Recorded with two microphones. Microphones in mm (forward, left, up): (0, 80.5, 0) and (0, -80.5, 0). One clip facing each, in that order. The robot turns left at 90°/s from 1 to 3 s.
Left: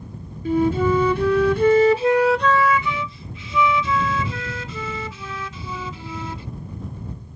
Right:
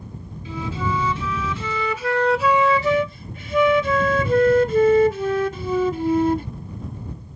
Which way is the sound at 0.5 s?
120° left.